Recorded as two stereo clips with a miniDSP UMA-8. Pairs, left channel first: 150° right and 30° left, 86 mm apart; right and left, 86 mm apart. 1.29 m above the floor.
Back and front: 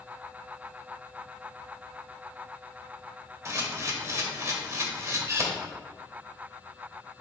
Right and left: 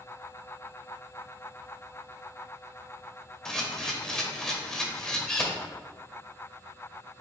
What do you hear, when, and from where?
3.5 s a camera shutter: 10° right, 1.5 m